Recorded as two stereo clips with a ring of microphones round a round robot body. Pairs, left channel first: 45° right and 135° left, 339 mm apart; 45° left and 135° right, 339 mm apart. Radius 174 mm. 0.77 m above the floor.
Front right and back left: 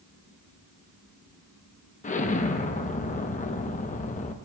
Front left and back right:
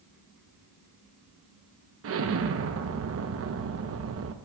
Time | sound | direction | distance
2.0 | an explosion | 105° right | 0.9 m